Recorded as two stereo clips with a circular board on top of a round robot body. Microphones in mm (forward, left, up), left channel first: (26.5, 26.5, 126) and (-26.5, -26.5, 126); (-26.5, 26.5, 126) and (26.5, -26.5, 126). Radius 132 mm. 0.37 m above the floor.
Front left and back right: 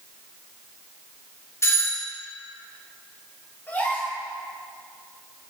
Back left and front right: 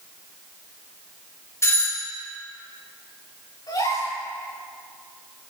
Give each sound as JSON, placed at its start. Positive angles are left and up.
{"t": 1.6, "sound": "a doorbell", "azimuth_deg": 90, "distance_m": 3.0}
{"t": 3.7, "sound": "a gasp", "azimuth_deg": 110, "distance_m": 7.0}